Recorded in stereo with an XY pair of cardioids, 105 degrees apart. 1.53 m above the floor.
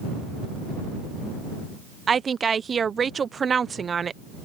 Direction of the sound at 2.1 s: 40° right.